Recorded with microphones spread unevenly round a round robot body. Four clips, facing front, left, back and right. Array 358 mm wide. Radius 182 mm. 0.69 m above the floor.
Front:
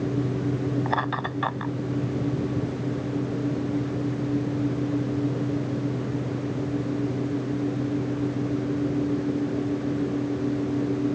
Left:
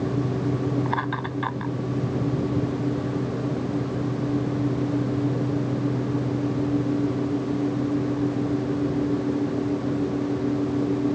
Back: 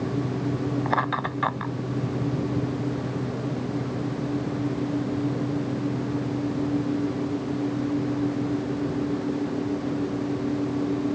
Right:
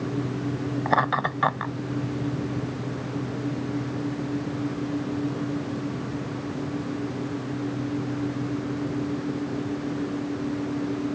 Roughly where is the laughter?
Behind right.